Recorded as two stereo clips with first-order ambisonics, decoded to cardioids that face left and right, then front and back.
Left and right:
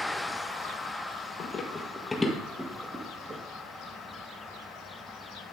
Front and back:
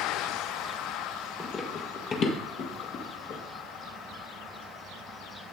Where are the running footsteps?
55° left, 1.6 m; by 3.4 s 30° right, 2 m.